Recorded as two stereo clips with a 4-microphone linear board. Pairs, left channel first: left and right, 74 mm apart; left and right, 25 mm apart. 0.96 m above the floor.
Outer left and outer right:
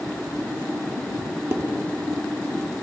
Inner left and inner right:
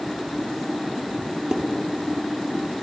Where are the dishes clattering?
35° right (ahead or behind), 1.1 m.